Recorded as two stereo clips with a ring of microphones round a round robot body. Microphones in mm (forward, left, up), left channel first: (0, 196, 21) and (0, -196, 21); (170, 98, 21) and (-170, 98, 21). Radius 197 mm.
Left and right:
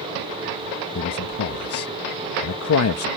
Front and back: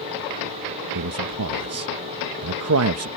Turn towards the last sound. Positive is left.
turn(degrees=140)